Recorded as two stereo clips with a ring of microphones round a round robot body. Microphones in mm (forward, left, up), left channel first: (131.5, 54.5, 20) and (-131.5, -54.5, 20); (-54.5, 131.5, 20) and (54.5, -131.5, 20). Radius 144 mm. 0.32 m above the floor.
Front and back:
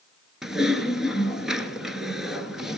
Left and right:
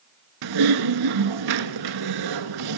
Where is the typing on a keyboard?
70° right, 1.1 m.